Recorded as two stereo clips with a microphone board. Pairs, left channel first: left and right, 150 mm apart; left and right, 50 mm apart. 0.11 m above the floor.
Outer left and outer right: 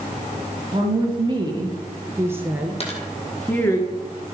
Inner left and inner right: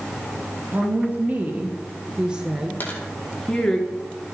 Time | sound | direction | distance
0.7 | a woman speaking | 40° right (ahead or behind) | 2.5 m
2.8 | a dropped coin | 45° left (ahead or behind) | 2 m